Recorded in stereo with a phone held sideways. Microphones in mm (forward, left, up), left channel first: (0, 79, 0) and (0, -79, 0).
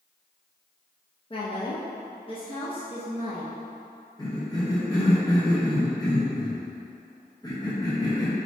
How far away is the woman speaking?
About 0.5 m.